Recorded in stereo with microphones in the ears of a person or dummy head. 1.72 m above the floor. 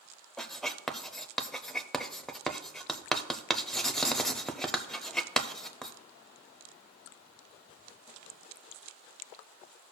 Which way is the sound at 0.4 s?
10° left (ahead or behind).